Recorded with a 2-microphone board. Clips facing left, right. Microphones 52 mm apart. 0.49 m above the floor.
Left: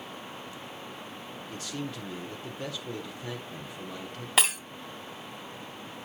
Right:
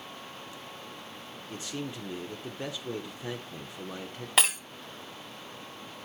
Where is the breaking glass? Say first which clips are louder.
Even; centre (ahead or behind), 1.1 m.